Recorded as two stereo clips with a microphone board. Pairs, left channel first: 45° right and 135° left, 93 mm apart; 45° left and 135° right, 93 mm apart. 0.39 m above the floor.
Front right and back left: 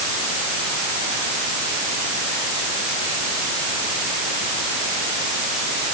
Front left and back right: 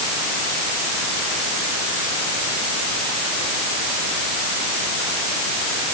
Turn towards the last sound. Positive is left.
No sound to turn to.